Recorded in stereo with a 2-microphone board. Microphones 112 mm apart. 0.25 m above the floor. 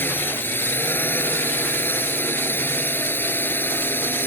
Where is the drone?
20° left (ahead or behind).